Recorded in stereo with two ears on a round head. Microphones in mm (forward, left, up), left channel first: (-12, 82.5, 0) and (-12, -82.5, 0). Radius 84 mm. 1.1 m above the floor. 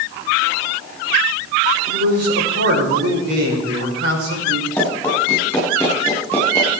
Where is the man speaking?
70° right (ahead or behind), 5.5 m.